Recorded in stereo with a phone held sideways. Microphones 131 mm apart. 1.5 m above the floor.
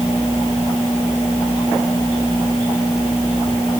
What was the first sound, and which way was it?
Only background noise.